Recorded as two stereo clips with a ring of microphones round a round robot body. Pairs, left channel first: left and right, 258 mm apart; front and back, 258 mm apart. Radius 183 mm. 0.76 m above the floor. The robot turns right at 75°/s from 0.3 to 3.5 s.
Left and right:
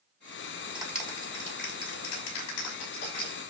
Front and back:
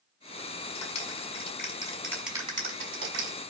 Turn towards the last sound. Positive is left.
turn(degrees=-170)